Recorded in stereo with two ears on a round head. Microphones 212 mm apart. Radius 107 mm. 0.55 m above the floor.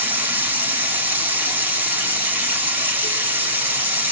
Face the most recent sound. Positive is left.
turn(degrees=-10)  # may be behind; listen again after turning